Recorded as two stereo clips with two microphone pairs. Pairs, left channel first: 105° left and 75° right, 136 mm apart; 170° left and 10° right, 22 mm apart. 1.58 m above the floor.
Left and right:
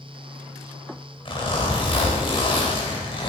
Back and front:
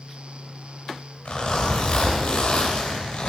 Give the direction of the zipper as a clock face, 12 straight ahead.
7 o'clock.